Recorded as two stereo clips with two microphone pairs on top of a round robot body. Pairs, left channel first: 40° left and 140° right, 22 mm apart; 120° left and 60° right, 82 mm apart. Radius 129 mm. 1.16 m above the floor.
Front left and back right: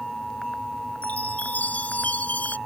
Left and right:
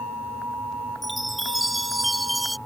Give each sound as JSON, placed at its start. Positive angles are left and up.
{"t": 1.0, "sound": "a chime", "azimuth_deg": 35}